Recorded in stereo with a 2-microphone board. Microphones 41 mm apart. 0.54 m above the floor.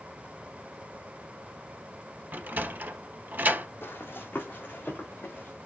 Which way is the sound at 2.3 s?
45° right (ahead or behind).